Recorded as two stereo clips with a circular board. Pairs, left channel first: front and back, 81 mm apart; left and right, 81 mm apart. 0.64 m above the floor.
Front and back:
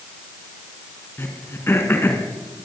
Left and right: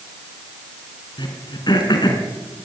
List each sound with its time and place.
1.2 s throat clearing: 60° left, 5 m